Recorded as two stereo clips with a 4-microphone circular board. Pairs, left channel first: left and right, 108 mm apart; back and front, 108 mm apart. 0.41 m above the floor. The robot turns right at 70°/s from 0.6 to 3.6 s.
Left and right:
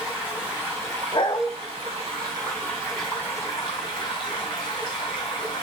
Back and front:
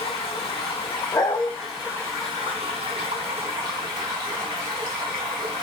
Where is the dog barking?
125° left, 0.7 m; by 1.5 s 150° left, 0.7 m.